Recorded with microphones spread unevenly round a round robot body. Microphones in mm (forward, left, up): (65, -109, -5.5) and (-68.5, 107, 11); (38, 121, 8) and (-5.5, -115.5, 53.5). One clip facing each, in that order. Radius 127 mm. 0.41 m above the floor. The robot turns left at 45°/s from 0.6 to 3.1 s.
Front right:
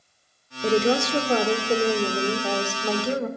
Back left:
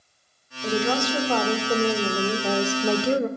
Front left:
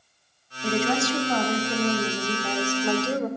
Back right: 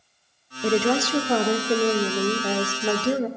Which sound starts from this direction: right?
A woman speaking, at 0.6 s.